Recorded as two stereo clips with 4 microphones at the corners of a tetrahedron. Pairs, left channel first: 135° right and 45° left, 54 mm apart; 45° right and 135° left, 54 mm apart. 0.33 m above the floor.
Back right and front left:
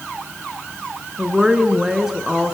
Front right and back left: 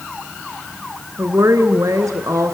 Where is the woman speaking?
125° left, 4 m.